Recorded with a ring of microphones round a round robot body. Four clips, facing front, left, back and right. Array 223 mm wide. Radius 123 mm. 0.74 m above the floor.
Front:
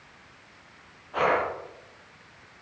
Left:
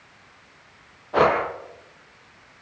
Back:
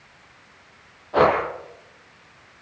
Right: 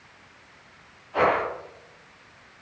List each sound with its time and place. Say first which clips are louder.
1.1 s breathing: left 3 dB, back 6 dB; 125° left, 7 m